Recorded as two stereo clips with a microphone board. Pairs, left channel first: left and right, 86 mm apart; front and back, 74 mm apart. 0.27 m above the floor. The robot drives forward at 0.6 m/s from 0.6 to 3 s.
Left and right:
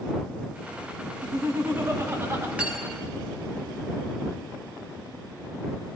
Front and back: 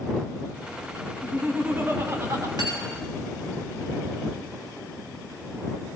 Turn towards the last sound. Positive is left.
turn(degrees=-165)